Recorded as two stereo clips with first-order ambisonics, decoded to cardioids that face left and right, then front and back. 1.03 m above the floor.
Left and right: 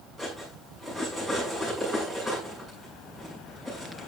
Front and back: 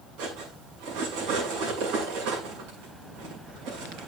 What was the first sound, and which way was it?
Cutlery clinking, 170° right.